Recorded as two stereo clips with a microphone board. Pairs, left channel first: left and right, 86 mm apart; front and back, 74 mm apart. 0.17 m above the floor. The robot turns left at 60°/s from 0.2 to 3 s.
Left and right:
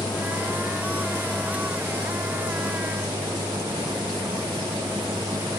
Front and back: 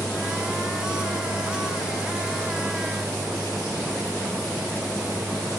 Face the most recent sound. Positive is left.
turn(degrees=-100)